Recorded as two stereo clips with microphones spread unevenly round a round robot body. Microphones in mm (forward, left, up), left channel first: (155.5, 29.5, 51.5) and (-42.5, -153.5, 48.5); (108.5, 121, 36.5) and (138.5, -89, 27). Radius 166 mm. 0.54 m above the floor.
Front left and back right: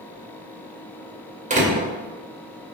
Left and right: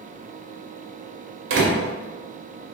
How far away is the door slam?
About 2 m.